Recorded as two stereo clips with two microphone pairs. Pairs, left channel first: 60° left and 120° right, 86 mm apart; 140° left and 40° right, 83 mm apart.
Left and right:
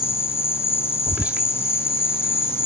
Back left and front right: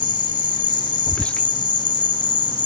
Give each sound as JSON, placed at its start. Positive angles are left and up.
{"t": 0.0, "sound": "an insect", "azimuth_deg": 120}
{"t": 1.1, "sound": "whispering", "azimuth_deg": -170}